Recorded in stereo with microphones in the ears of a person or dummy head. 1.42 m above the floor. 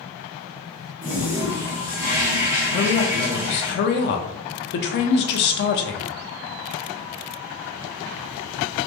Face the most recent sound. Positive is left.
turn(degrees=65)  # may be behind; listen again after turning